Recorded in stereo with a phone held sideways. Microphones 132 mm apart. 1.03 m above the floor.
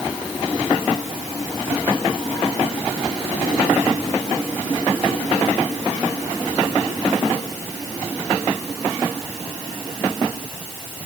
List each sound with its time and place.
Only background noise.